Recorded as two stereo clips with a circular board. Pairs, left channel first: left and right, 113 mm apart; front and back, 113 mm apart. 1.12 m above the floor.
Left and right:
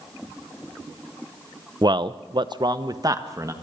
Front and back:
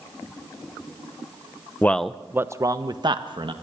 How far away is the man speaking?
About 0.7 m.